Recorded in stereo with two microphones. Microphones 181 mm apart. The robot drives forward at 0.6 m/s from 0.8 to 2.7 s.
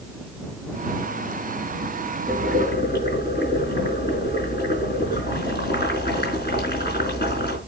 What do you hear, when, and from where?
2.3 s boiling: 65° left (ahead or behind), 4.5 m; by 7.6 s 60° left (ahead or behind), 5 m